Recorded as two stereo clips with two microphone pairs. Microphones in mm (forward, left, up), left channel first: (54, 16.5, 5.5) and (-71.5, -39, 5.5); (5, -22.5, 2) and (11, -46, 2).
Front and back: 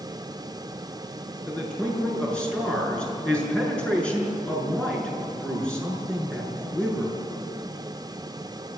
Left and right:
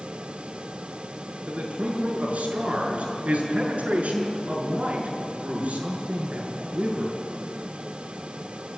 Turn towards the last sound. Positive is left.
turn(degrees=-55)